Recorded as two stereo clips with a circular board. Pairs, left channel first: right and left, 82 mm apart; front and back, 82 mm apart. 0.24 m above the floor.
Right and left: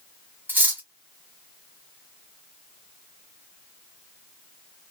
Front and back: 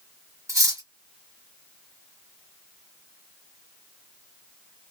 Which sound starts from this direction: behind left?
Cutlery clinking, at 0.5 s.